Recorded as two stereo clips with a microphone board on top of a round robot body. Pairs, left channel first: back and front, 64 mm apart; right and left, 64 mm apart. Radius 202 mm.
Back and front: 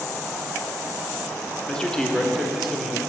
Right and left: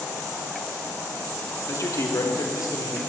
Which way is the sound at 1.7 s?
110° right.